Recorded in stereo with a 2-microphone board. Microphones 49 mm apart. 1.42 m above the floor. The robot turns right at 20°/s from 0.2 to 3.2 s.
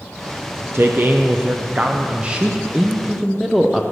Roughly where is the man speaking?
Ahead right.